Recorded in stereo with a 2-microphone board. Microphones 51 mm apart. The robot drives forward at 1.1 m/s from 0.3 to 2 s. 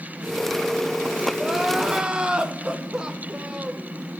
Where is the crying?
10° right (ahead or behind), 1.1 m; by 3.9 s 20° right (ahead or behind), 0.7 m.